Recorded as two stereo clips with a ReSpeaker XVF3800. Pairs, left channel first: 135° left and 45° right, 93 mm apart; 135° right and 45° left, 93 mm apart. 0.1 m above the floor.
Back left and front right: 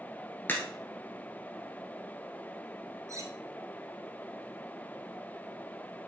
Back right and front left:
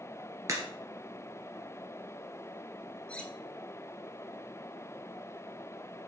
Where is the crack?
75° left, 1.4 m.